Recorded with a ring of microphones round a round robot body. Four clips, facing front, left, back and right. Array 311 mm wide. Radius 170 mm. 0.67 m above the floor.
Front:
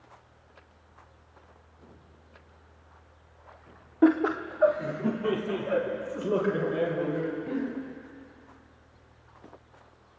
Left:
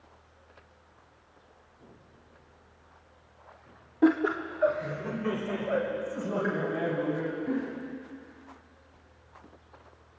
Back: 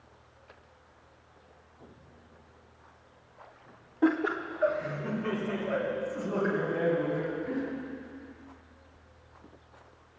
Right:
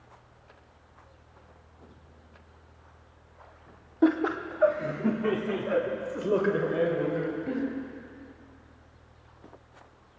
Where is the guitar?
No guitar in this recording.